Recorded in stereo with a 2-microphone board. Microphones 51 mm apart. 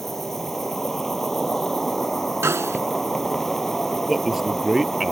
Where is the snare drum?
75° right (ahead or behind).